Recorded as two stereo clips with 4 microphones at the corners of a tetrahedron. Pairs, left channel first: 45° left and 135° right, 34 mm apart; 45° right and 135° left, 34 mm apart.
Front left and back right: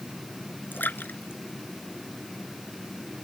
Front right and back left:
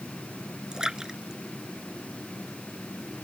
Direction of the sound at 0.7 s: 65° left.